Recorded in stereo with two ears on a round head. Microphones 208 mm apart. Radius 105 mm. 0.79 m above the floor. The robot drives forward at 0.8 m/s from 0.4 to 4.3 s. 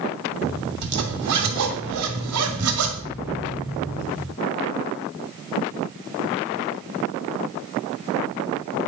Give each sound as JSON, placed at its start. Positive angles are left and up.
{"t": 0.8, "sound": "a zipper", "side_deg": -65, "distance_m": 2.5}